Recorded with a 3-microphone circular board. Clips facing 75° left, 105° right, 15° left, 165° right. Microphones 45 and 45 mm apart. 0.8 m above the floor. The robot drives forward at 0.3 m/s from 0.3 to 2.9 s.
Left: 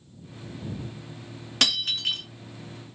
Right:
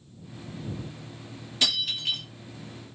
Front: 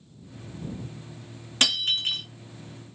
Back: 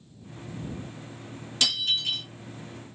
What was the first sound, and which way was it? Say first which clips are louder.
Breaking glass: left 2 dB, front 2 dB; 65° left.